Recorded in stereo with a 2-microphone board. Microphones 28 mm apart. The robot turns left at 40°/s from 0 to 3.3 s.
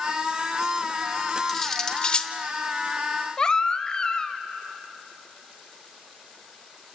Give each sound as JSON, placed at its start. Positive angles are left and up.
{"t": 1.5, "sound": "cutlery clinking", "side_deg": 10, "distance_m": 0.8}
{"t": 3.4, "sound": "a baby crying", "side_deg": 30, "distance_m": 0.8}